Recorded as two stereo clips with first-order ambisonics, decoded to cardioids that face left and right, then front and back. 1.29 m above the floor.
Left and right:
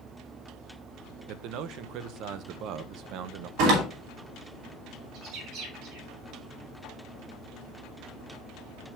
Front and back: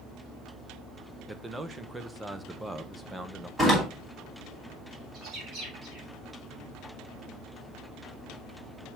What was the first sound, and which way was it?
A man speaking, 100° right.